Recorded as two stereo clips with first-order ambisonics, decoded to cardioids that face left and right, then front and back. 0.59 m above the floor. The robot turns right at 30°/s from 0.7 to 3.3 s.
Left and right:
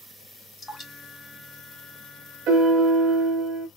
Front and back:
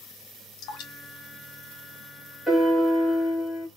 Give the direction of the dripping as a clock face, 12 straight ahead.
12 o'clock.